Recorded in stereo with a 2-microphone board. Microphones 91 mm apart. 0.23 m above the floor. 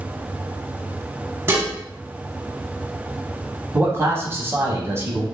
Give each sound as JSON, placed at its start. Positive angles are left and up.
{"t": 1.5, "sound": "dishes clattering", "side_deg": -25, "distance_m": 1.1}
{"t": 3.7, "sound": "a man speaking", "side_deg": -30, "distance_m": 1.1}